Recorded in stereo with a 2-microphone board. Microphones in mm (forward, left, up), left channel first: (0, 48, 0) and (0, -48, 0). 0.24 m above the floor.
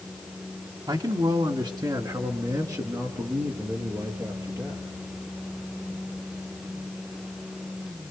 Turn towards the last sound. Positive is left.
turn(degrees=-35)  # may be behind; listen again after turning